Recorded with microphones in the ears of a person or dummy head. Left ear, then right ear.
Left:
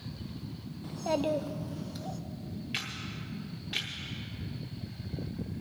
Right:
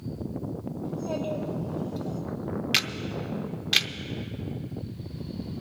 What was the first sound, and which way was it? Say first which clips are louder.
A child speaking: left 2 dB; 55° left (ahead or behind).